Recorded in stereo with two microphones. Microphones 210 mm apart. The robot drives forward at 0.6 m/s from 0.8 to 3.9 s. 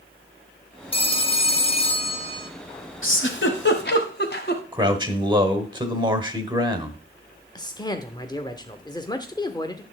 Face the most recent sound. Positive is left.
turn(degrees=20)  # may be behind; listen again after turning